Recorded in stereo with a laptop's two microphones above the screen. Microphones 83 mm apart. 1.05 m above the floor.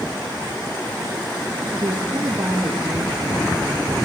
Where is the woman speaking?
40° right (ahead or behind), 1.7 m; by 4.0 s 75° right (ahead or behind), 1.7 m.